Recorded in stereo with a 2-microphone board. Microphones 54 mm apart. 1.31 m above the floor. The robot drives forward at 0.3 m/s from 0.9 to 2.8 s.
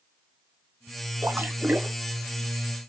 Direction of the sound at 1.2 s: 40° right (ahead or behind).